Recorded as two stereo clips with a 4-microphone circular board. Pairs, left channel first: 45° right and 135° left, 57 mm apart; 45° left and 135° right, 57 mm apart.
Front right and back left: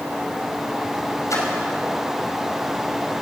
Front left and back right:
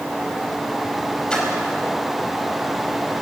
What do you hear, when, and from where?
1.3 s a splash: 30° right, 4.5 m